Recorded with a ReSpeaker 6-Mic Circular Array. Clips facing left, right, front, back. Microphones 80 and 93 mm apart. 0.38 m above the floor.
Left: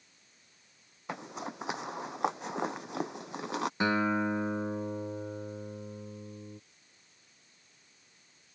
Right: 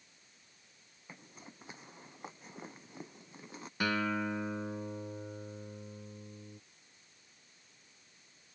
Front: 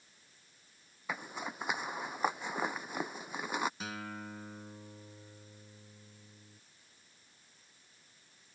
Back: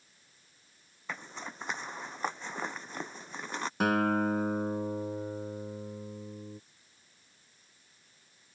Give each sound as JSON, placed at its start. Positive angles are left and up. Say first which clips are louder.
{"t": 1.1, "sound": "a zipper", "louder": "left 15 dB, front 2 dB", "azimuth_deg": 80}
{"t": 3.8, "sound": "a guitar", "louder": "left 4 dB, back 16 dB", "azimuth_deg": 155}